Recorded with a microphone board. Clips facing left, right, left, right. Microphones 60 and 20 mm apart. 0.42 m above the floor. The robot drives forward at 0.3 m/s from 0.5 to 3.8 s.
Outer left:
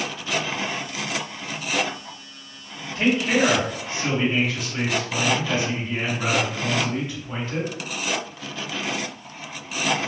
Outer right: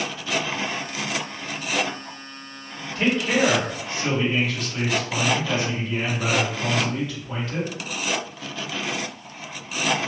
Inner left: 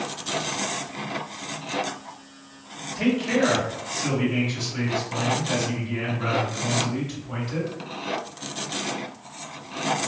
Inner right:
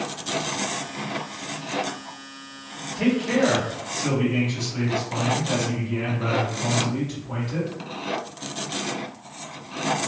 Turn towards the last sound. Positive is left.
turn(degrees=5)  # may be behind; listen again after turning